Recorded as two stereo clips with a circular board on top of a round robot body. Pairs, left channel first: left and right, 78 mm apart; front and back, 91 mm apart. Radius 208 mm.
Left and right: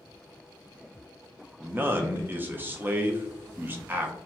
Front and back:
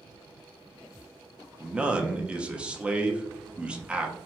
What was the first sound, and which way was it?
A man speaking, 115° right.